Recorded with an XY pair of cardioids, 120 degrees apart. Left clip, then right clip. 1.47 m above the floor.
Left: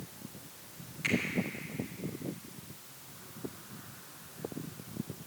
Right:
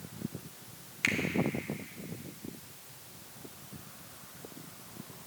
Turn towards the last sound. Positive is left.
turn(degrees=-55)